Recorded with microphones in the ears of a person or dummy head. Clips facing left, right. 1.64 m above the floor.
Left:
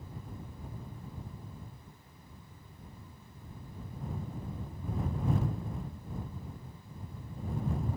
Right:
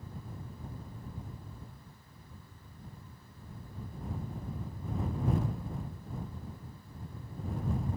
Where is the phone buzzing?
I don't hear a phone buzzing.